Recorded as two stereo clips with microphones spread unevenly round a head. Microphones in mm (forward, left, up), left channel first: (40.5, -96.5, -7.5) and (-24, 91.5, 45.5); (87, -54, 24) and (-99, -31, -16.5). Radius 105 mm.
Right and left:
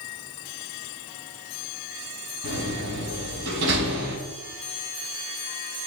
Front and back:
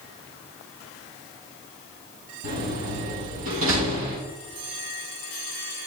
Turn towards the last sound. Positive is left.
turn(degrees=140)